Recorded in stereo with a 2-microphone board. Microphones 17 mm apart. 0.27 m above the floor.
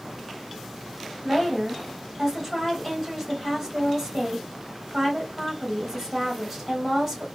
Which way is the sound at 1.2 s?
10° left (ahead or behind).